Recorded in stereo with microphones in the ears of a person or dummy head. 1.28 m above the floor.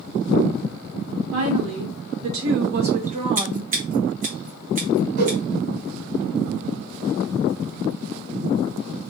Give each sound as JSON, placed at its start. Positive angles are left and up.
{"t": 1.3, "sound": "a woman speaking", "side_deg": -85, "distance_m": 1.9}
{"t": 3.4, "sound": "scissors", "side_deg": -45, "distance_m": 1.1}
{"t": 5.2, "sound": "a whoosh", "side_deg": -60, "distance_m": 1.6}